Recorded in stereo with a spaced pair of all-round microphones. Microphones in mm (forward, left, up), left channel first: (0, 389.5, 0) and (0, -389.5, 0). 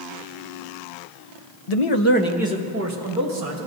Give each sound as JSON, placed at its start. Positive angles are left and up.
{"t": 1.7, "sound": "a man speaking", "side_deg": 55, "distance_m": 0.8}